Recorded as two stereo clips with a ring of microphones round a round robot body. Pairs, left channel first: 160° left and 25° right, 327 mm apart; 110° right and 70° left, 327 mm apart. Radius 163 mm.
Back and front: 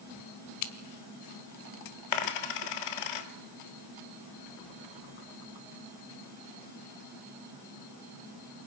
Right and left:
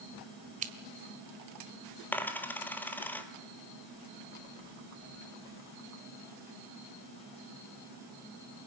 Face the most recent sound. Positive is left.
turn(degrees=160)